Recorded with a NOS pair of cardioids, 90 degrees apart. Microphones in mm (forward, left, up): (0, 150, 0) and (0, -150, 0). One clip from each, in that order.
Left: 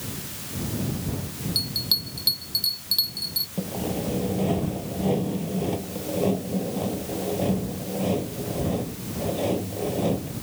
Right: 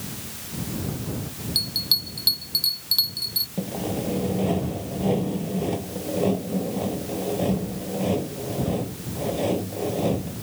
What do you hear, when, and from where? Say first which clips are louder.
1.6 s a bell: right 2 dB; 15° right
3.6 s sawing: right 1 dB; 10° right